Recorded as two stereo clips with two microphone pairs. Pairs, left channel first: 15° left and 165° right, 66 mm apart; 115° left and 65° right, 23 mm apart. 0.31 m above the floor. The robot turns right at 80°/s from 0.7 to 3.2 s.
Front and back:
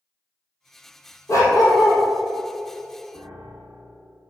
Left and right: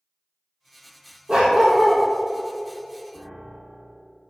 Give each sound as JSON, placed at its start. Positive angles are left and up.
{"t": 1.3, "sound": "a dog barking", "azimuth_deg": -25, "distance_m": 2.5}
{"t": 3.1, "sound": "a piano", "azimuth_deg": 165, "distance_m": 2.5}